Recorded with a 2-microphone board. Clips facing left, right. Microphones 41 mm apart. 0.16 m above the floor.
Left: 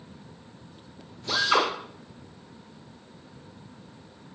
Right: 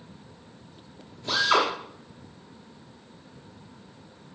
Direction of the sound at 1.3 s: 50° right (ahead or behind).